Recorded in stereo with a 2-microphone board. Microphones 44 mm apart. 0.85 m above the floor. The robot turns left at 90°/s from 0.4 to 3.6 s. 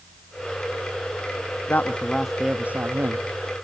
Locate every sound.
1.7 s a woman speaking: 55° left, 1.0 m; by 3.3 s 90° right, 1.0 m